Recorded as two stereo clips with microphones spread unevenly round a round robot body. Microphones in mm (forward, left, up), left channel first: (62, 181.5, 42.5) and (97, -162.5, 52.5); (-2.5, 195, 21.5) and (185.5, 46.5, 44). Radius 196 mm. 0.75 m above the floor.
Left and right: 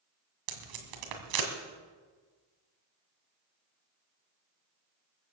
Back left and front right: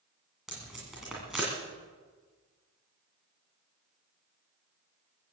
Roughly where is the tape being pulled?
Behind right.